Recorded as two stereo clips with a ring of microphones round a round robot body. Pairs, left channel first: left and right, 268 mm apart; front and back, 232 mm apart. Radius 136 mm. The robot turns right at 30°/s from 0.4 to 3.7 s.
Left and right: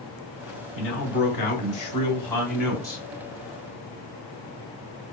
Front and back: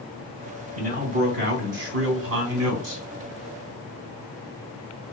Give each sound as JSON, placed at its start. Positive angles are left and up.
{"t": 0.8, "sound": "a man speaking", "azimuth_deg": 130, "distance_m": 1.3}